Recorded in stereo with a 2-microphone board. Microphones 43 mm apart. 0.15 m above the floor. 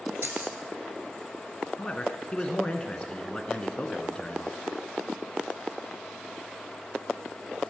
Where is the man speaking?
25° left (ahead or behind), 1.3 m.